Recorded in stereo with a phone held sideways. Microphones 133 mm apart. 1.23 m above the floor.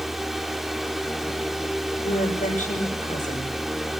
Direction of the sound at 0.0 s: Centre (ahead or behind).